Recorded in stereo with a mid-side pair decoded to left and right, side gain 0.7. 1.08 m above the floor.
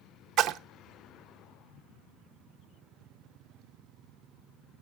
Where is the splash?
45° right, 0.8 m.